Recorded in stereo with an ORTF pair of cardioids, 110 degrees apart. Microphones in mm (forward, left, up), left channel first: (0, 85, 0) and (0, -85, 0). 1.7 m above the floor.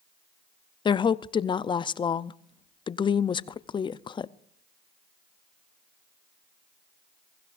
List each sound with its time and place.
0.8 s a woman speaking: 30° left, 0.6 m